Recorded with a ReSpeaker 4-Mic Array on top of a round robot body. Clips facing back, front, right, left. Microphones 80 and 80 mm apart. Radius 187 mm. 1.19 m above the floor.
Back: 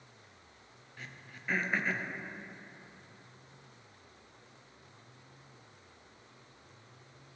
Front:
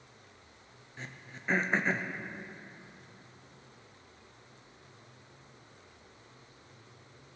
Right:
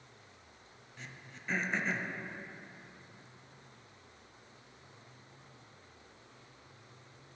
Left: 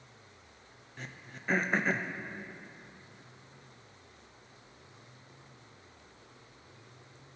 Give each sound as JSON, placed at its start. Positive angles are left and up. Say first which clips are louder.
{"t": 1.0, "sound": "throat clearing", "louder": "front 3 dB, left 4 dB", "azimuth_deg": 55, "distance_m": 0.8}